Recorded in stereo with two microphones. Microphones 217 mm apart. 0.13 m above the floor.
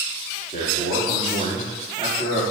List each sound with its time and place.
0.5 s a man speaking: 40° left (ahead or behind), 4.5 m